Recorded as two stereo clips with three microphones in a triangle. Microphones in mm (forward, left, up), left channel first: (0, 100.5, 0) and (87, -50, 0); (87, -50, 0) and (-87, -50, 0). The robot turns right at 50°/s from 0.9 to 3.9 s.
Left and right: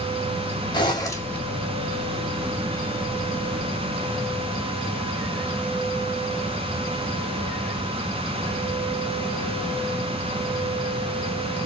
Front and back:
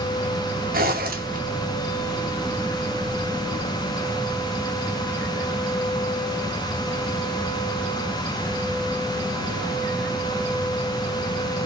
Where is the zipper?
175° left, 1.0 m; by 1.4 s 160° right, 1.0 m.